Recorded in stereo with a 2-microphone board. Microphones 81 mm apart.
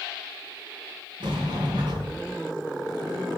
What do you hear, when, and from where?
1.2 s a sliding door: 75° right (ahead or behind), 3.5 m